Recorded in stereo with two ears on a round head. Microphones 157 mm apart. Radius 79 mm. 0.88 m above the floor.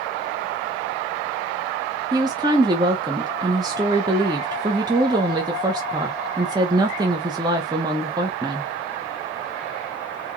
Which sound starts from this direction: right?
A woman speaking, at 2.1 s.